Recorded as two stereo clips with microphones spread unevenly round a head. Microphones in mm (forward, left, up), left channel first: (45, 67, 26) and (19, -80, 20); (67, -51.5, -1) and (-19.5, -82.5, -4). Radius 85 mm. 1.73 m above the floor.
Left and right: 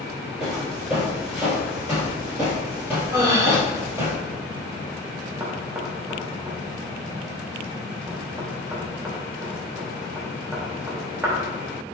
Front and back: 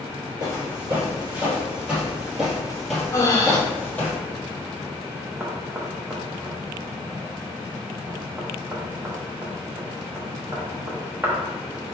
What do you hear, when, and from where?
0.4 s footsteps: 170° left, 1.9 m; by 4.1 s 40° right, 2.0 m
3.1 s breathing: 30° right, 1.0 m
5.4 s knocking: 160° right, 0.6 m